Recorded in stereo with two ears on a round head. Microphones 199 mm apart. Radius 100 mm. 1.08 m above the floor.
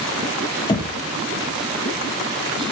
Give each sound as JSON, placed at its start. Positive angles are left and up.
{"t": 0.7, "sound": "knocking", "side_deg": 20, "distance_m": 1.3}